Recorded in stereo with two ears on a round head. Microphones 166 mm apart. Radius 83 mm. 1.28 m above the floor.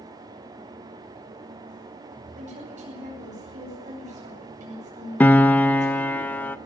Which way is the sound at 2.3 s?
40° right (ahead or behind).